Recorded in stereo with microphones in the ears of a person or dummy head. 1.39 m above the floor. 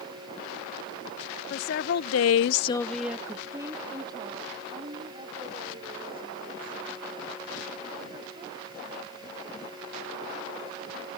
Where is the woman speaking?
50° left (ahead or behind); by 10.2 s 30° right (ahead or behind).